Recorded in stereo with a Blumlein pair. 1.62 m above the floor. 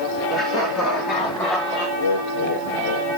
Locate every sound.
0.3 s laughter: 20° left, 6 m; by 1.9 s 45° left, 6.5 m
2.0 s laughter: 55° left, 3 m